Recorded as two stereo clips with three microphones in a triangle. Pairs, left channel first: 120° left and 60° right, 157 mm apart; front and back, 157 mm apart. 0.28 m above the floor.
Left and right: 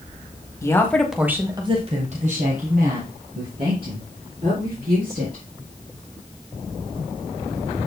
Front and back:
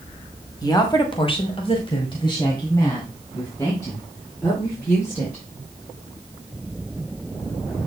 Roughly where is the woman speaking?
Ahead left.